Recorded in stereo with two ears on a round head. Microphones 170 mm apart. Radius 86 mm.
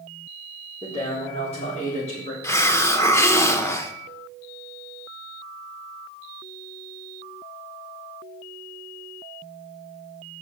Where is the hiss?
15° left (ahead or behind), 0.7 m.